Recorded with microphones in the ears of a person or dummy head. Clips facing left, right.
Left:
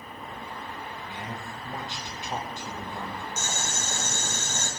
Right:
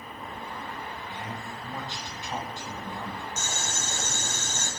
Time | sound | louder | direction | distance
1.1 | a man speaking | even | 15° left (ahead or behind) | 0.5 m
3.4 | boiling | left 1 dB | 45° left (ahead or behind) | 0.6 m